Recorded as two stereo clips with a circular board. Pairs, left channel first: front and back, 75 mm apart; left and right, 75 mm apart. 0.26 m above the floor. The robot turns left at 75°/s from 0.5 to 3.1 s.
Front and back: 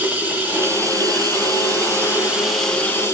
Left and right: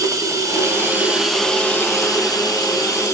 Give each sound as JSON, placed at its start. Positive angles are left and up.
{"t": 0.0, "sound": "running water", "azimuth_deg": -120, "distance_m": 2.0}